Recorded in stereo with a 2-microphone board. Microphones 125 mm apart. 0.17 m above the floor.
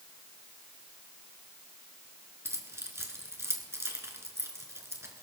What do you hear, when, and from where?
2.5 s keys jangling: 20° right (ahead or behind), 1.5 m